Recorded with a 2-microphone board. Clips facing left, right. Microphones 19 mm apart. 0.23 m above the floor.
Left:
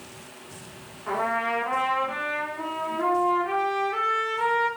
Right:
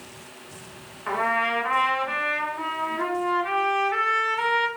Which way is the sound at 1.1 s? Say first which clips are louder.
Right 2 dB; 60° right (ahead or behind).